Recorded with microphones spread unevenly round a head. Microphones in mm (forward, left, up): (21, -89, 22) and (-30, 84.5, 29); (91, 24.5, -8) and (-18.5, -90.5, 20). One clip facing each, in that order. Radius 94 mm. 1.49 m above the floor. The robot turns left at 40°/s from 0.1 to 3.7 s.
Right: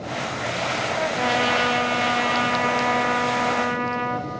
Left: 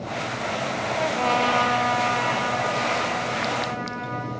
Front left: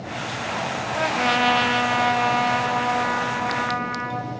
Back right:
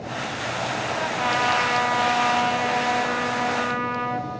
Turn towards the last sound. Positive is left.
turn(degrees=-90)